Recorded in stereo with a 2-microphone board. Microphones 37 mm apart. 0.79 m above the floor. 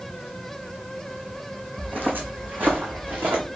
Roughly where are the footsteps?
Right.